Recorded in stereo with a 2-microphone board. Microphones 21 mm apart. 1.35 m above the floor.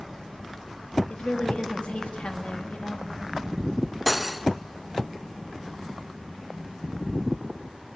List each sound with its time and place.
1.1 s a woman speaking: 65° left (ahead or behind), 2.5 m
4.1 s cutlery clinking: 5° right (ahead or behind), 0.6 m